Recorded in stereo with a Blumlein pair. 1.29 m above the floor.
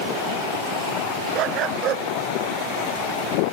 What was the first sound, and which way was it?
A dog barking, 35° right.